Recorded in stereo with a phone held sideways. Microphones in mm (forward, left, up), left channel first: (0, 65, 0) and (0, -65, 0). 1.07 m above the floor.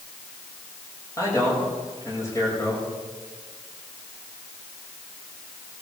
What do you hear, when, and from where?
1.2 s a man speaking: 25° left (ahead or behind), 5.5 m